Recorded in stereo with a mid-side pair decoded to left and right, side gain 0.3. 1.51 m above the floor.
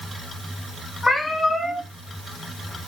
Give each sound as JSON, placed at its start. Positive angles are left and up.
{"t": 1.0, "sound": "a cat meowing", "azimuth_deg": 40, "distance_m": 4.5}